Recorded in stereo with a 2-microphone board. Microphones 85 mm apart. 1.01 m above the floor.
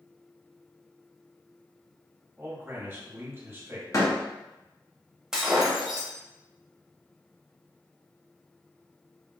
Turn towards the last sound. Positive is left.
turn(degrees=-5)  # may be behind; listen again after turning